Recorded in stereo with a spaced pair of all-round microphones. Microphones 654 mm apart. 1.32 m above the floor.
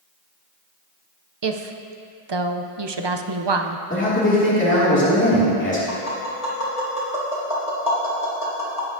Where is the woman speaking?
45° right (ahead or behind), 0.5 m.